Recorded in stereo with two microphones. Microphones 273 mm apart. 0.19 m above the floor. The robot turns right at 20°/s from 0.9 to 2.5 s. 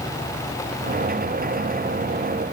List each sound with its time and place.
Only background noise.